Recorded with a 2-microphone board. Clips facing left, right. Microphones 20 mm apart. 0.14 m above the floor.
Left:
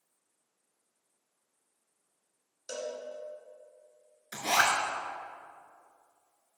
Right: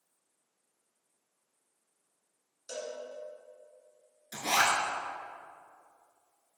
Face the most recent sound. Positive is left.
turn(degrees=55)  # may be behind; listen again after turning